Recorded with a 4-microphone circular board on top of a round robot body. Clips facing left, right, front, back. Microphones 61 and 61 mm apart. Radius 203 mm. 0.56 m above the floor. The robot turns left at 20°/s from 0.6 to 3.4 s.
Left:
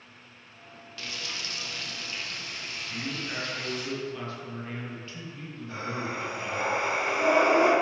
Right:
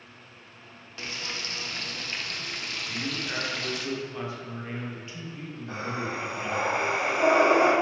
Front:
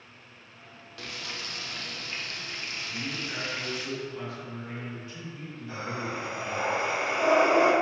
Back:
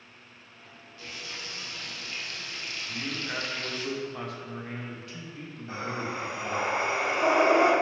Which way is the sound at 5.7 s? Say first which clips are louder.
Right 1 dB, back 1 dB; 120° right.